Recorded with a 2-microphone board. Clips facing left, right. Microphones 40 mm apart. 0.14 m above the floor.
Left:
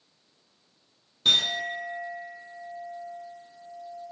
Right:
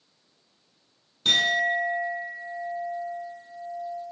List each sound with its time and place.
1.2 s a clink: 5° left (ahead or behind), 0.7 m